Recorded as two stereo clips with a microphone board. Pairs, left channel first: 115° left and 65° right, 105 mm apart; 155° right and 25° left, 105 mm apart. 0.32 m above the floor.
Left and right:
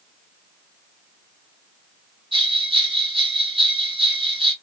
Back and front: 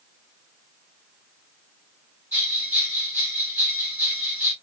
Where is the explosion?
No explosion in this recording.